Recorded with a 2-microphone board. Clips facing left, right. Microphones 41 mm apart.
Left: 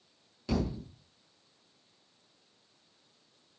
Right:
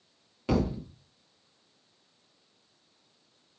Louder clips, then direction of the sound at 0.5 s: Right 5 dB; 40° right (ahead or behind).